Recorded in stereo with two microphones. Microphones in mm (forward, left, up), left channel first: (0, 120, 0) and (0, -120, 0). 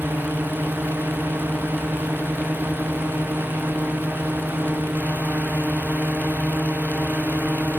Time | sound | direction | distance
0.0 | a drone | 10° right (ahead or behind) | ?